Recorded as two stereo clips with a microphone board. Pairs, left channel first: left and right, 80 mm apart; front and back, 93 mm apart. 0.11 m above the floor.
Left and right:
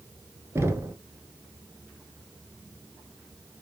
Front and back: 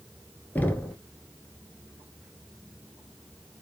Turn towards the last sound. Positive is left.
turn(degrees=-60)